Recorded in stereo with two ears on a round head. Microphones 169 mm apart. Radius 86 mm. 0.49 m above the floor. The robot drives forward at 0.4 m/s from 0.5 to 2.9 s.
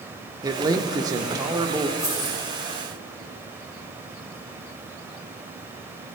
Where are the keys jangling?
15° left (ahead or behind), 5 m.